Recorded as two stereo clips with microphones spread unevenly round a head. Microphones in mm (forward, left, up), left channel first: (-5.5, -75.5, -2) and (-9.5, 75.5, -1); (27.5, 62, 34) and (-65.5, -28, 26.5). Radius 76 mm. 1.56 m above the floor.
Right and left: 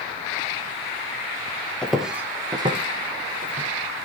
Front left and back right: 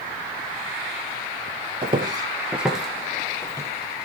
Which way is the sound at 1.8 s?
175° right.